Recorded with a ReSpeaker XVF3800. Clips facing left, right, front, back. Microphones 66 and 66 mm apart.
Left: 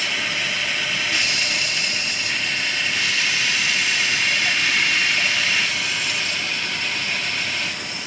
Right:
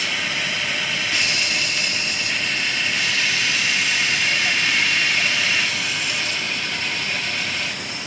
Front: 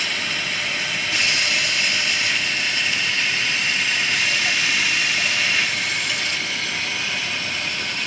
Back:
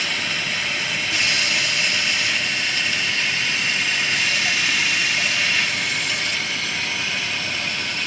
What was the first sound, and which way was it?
Only background noise.